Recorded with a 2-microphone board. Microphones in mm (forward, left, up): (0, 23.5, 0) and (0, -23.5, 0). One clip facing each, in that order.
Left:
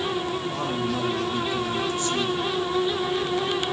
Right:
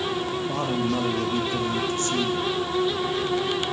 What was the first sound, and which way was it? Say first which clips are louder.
A man speaking: right 2 dB; 50° right (ahead or behind).